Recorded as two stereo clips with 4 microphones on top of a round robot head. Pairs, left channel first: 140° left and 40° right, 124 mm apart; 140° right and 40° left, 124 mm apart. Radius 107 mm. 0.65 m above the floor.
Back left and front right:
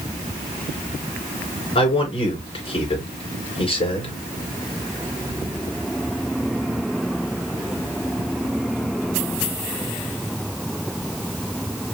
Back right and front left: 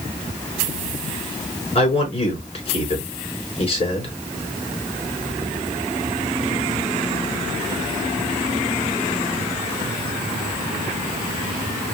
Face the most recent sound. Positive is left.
turn(degrees=180)